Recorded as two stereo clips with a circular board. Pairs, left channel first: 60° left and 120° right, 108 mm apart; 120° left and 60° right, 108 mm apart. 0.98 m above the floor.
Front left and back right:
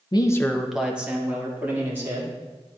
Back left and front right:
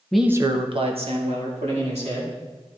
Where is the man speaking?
40° left, 0.5 m; by 2.4 s 55° right, 2.5 m.